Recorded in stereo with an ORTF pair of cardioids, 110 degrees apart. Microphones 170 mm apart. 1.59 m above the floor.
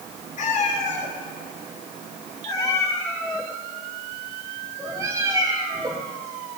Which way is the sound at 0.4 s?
50° left.